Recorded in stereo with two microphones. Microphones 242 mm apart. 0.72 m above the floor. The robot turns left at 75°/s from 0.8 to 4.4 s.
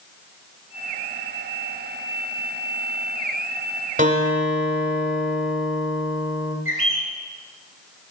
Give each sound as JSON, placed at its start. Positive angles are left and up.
{"t": 4.0, "sound": "a guitar", "azimuth_deg": -145, "distance_m": 1.3}
{"t": 6.7, "sound": "a bird", "side_deg": -60, "distance_m": 2.0}